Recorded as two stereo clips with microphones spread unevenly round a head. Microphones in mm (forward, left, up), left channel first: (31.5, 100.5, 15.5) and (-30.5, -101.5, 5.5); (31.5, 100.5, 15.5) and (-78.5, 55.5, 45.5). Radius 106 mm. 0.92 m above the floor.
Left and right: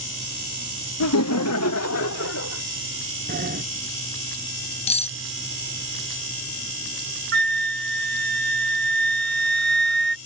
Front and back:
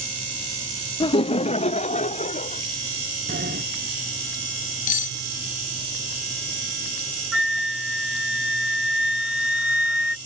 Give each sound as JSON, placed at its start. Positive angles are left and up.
{"t": 1.0, "sound": "laughter", "azimuth_deg": 70}
{"t": 3.3, "sound": "a sliding door", "azimuth_deg": -160}
{"t": 4.9, "sound": "cutlery clinking", "azimuth_deg": 10}
{"t": 7.3, "sound": "a flute", "azimuth_deg": -70}